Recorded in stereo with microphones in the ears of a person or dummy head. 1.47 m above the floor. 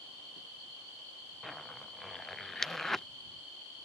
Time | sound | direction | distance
1.4 | a zipper | 5° left (ahead or behind) | ?